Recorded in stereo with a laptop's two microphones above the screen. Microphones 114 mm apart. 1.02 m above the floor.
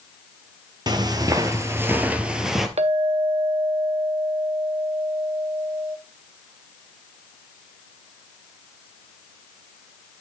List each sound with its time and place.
0.9 s footsteps: 40° right (ahead or behind), 1.2 m; by 2.7 s centre (ahead or behind), 1.2 m
2.8 s a clink: 70° right (ahead or behind), 0.7 m